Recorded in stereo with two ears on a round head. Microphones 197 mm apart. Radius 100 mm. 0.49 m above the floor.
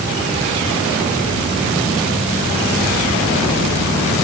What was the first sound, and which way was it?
Only background noise.